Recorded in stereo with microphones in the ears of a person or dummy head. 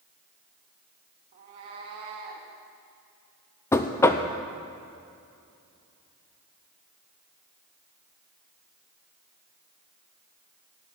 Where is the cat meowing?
30° right (ahead or behind), 1.2 m.